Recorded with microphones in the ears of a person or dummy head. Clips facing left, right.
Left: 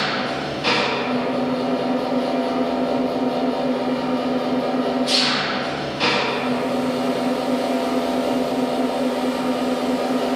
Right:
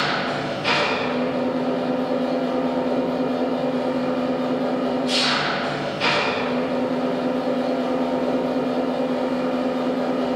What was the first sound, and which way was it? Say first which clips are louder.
An engine running: even; 65° left (ahead or behind).